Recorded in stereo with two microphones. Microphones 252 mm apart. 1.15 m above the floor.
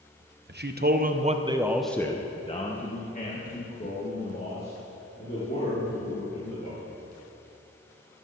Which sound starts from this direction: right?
A man speaking, at 0.5 s.